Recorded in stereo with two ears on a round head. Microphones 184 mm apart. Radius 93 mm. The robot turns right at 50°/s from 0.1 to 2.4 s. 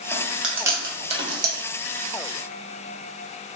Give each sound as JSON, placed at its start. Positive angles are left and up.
{"t": 0.1, "sound": "chewing", "side_deg": 10, "distance_m": 0.6}